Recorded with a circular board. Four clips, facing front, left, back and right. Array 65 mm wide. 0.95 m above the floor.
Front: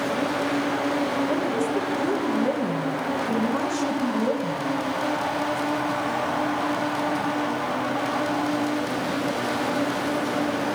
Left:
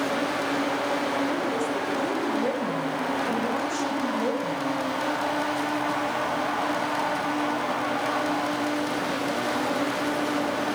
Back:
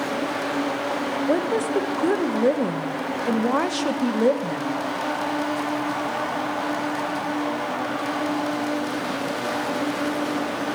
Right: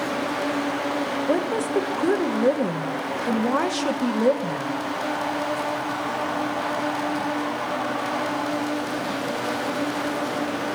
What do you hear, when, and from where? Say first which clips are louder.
1.3 s a woman speaking: right 4 dB, back 2 dB; 145° right, 1.0 m